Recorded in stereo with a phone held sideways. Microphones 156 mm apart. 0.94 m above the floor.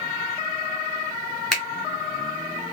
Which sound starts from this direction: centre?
A finger snap, at 1.5 s.